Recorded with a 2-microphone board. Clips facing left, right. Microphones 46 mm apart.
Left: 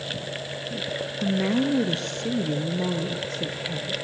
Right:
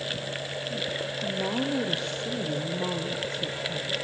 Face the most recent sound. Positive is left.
turn(degrees=60)  # may be behind; listen again after turning